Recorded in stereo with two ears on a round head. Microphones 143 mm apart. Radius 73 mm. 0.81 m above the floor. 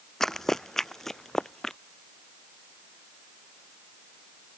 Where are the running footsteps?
5° left (ahead or behind).